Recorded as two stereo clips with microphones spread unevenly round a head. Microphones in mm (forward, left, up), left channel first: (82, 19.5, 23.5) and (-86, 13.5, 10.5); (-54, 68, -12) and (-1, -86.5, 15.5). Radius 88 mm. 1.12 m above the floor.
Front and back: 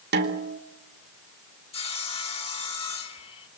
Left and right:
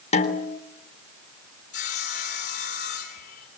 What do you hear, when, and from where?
0.1 s a snare drum: 160° left, 3.5 m
1.7 s sawing: 60° left, 7 m